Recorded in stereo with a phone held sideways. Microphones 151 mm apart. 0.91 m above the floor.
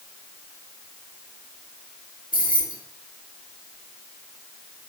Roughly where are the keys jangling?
Left.